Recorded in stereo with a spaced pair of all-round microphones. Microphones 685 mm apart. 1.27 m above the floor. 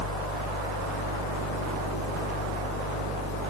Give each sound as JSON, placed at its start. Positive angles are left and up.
{"t": 0.0, "sound": "a fan", "side_deg": 20, "distance_m": 4.5}